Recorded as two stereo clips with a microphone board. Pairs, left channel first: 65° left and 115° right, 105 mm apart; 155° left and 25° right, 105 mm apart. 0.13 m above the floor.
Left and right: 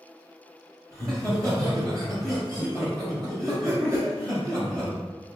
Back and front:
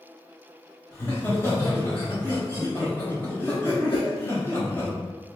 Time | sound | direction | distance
0.9 | laughter | 145° right | 2.0 m
3.9 | a whoosh | straight behind | 0.5 m